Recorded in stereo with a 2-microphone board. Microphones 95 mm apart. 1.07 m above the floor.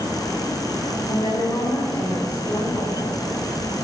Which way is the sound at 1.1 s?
40° left (ahead or behind).